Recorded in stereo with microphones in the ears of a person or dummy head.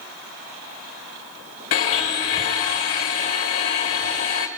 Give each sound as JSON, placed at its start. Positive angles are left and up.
{"t": 1.7, "sound": "a blender", "side_deg": 40, "distance_m": 1.1}